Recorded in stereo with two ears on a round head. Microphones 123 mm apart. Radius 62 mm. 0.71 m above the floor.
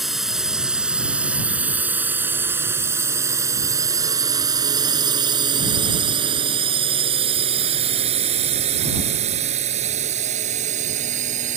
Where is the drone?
Centre (ahead or behind); by 11.6 s 60° right (ahead or behind).